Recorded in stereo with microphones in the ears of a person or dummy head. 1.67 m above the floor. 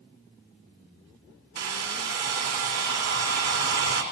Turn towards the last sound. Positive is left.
turn(degrees=-75)  # may be behind; listen again after turning